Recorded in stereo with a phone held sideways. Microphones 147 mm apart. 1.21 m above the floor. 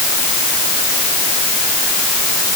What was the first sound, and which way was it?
Only background noise.